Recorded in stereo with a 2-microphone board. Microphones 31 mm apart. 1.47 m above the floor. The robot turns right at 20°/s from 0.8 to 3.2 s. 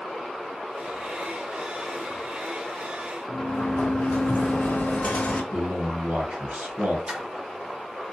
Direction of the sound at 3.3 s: 60° left (ahead or behind).